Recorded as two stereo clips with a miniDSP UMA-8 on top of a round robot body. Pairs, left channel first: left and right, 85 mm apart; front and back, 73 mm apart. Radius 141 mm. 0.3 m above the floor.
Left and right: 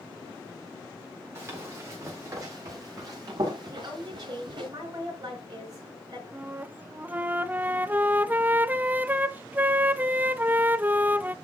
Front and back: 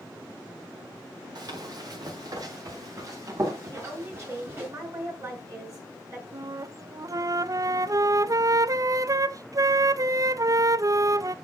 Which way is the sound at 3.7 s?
135° right.